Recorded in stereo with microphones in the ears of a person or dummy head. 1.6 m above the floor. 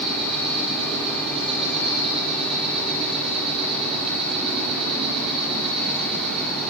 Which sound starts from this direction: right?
An insect, at 0.0 s.